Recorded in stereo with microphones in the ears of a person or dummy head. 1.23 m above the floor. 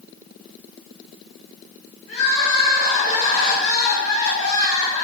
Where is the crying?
85° left, 3 m.